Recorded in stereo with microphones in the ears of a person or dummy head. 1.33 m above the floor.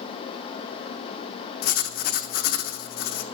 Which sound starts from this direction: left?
Writing, at 1.6 s.